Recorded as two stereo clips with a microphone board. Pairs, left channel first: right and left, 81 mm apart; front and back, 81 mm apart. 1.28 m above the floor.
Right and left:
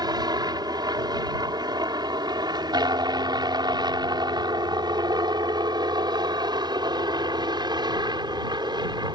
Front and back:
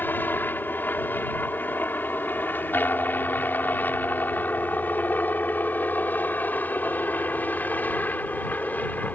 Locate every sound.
0.0 s a helicopter: 65° left; by 9.2 s 70° left